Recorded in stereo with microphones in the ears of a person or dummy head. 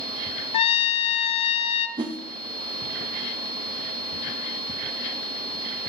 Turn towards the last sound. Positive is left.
turn(degrees=-20)  # may be behind; listen again after turning